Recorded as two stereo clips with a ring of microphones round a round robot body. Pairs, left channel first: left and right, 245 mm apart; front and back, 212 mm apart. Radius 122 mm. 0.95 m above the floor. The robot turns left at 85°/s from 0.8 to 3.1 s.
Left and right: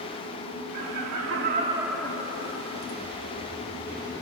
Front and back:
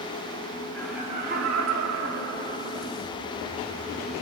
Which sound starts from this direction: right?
Laughter, at 0.7 s.